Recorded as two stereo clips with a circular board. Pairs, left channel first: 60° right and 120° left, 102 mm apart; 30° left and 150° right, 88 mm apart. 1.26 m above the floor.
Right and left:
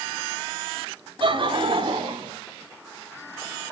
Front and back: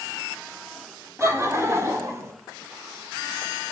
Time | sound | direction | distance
1.2 | laughter | 155° left | 3.5 m